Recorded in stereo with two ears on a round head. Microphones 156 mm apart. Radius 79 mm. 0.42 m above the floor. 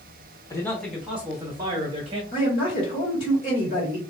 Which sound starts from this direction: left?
A man speaking, at 2.3 s.